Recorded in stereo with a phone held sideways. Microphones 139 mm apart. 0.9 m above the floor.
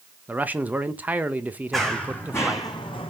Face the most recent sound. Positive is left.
turn(degrees=40)  # may be behind; listen again after turning